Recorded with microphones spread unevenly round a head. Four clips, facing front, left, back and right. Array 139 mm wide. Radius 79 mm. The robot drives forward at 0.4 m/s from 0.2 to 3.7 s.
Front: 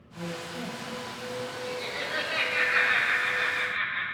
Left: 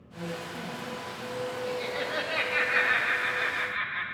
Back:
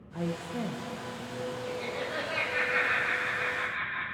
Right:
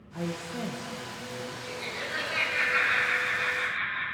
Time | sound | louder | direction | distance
0.1 | a woman speaking | right 2 dB, back 3 dB | 155° right | 1.1 m
1.7 | laughter | left 5 dB, even | 115° left | 1.7 m